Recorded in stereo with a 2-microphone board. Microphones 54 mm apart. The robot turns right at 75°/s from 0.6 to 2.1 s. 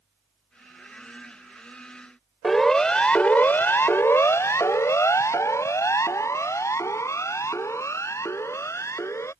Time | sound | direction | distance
2.4 | a siren | 5° left (ahead or behind) | ?